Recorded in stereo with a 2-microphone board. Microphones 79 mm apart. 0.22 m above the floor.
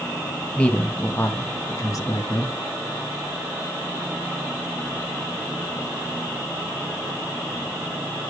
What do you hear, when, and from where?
0.6 s a man speaking: 10° left (ahead or behind), 1.1 m; by 2.5 s 50° left (ahead or behind), 1.9 m